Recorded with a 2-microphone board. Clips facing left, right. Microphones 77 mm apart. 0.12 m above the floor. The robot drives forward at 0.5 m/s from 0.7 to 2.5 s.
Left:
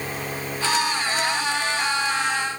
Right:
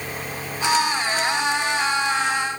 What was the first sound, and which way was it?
Only background noise.